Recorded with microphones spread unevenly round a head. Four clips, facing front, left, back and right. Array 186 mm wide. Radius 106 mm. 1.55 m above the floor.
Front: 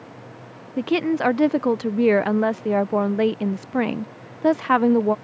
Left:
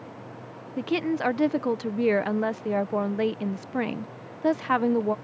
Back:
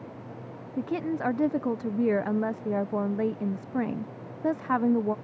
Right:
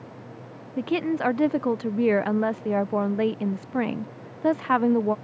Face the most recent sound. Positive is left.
turn(degrees=-25)